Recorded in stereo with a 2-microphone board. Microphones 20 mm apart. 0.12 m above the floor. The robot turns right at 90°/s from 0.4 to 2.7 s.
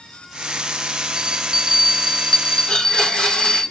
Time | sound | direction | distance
1.2 | a bell | 80° right | 0.6 m
2.7 | a blender | 55° left (ahead or behind) | 2.5 m